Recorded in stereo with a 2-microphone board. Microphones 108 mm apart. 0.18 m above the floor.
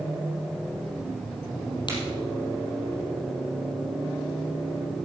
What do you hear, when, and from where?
1.9 s a crack: 45° left (ahead or behind), 3.5 m